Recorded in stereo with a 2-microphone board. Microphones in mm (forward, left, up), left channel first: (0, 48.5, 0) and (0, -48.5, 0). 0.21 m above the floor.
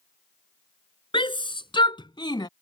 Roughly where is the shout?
Left.